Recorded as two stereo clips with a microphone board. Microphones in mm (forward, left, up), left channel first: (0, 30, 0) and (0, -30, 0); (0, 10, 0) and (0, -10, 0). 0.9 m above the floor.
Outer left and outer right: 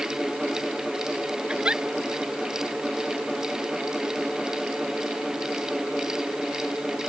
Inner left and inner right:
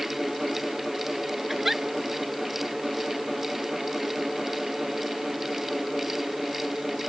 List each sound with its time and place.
1.5 s a giggle: 15° right (ahead or behind)